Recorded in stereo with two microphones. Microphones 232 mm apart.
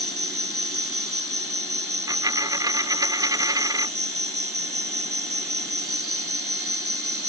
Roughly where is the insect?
Right.